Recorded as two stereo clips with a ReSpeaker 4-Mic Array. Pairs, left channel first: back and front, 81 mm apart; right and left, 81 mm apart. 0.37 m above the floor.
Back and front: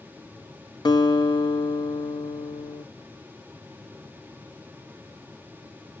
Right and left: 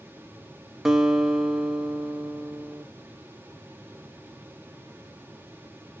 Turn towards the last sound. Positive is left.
turn(degrees=175)